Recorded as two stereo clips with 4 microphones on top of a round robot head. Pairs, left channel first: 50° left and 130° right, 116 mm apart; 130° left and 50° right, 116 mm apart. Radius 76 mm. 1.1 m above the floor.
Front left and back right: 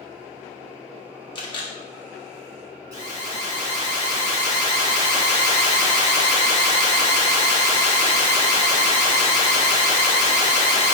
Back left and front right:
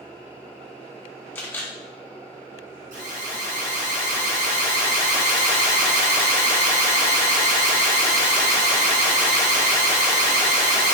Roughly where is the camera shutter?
Left.